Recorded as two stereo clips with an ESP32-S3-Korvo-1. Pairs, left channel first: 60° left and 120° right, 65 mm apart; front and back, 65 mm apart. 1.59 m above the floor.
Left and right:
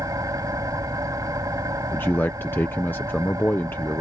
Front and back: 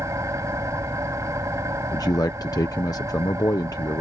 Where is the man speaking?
5° left.